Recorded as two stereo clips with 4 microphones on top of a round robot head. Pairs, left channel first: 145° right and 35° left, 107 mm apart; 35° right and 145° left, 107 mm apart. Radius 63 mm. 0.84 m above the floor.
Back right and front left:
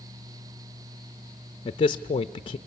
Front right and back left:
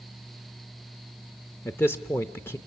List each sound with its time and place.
1.6 s a man speaking: 105° right, 0.6 m